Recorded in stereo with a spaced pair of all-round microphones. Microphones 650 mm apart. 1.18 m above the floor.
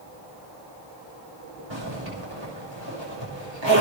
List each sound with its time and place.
1.7 s a zipper: 40° right (ahead or behind), 7 m